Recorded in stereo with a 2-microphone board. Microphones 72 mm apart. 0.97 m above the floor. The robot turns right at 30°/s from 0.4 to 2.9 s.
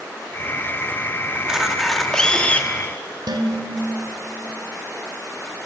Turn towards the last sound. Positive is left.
turn(degrees=-90)